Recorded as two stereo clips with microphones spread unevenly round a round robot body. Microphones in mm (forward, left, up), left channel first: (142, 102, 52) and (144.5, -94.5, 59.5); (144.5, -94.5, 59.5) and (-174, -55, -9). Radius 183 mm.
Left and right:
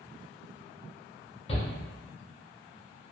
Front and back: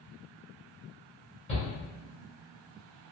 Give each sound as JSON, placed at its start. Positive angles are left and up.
{"t": 1.5, "sound": "a shout", "azimuth_deg": 70, "distance_m": 0.9}